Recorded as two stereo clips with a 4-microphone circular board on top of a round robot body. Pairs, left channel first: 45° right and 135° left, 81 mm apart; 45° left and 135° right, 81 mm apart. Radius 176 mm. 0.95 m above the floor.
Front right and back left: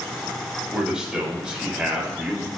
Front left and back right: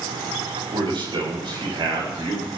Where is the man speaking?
145° right, 6 m.